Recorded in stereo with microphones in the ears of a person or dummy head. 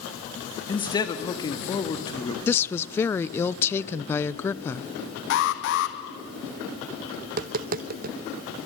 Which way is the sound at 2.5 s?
10° left (ahead or behind).